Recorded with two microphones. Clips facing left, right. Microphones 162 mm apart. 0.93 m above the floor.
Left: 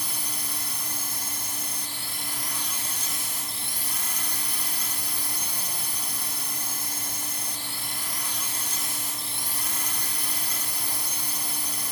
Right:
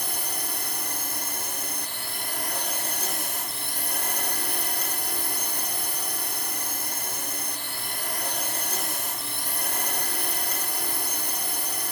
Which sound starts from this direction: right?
A drone, at 0.0 s.